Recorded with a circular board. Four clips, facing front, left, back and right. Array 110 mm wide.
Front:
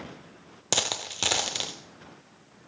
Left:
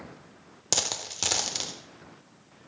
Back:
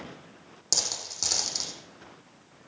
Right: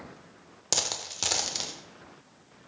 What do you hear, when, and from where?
0.7 s a dropped coin: 10° left, 0.6 m